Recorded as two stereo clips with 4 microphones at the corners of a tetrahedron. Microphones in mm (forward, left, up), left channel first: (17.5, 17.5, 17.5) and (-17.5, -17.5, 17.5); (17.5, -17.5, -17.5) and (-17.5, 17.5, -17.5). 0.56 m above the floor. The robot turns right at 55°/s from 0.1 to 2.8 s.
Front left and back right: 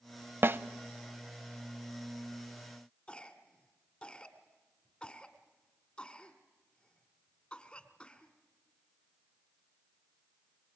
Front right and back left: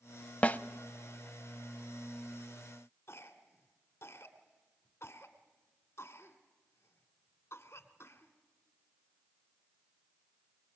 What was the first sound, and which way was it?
A snare drum, 105° right.